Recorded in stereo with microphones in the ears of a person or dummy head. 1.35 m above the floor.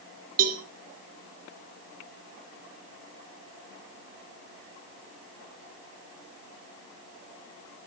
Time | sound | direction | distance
0.4 | a cowbell | 45° right (ahead or behind) | 1.7 m